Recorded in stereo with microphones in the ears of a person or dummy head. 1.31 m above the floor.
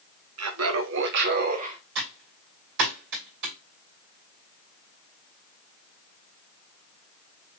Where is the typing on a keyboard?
65° right (ahead or behind), 2.5 m.